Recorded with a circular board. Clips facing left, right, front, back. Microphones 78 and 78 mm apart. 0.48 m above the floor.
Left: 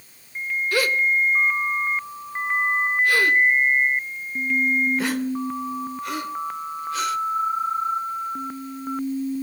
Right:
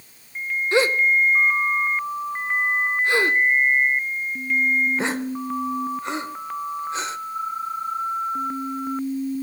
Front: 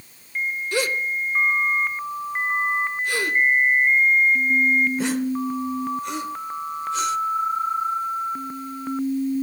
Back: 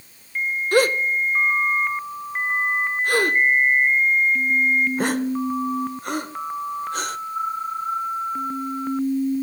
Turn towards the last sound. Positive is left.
turn(degrees=-150)